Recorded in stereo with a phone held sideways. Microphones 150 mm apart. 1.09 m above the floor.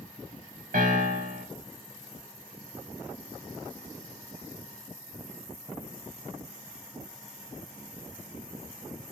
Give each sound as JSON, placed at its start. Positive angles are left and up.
{"t": 0.7, "sound": "a piano", "side_deg": -70, "distance_m": 2.0}